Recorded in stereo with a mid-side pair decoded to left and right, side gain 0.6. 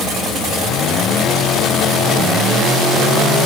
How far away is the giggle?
I don't hear a giggle.